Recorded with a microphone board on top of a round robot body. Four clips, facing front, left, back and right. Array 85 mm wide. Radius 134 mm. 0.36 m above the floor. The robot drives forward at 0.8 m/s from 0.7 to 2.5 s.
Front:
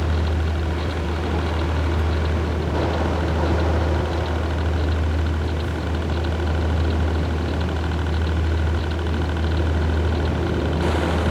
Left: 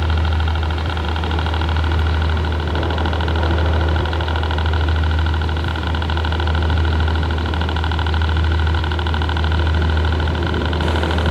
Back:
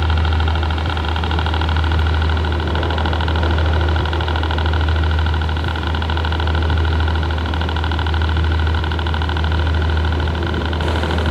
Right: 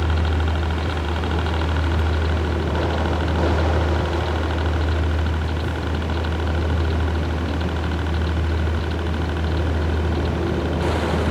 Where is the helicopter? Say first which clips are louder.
Left 1 dB, back 4 dB; 160° left; by 11.3 s 130° left.